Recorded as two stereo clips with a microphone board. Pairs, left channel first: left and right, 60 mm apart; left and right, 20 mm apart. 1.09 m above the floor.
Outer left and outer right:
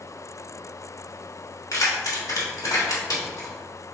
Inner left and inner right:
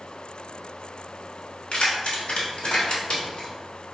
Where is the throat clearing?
No throat clearing in this recording.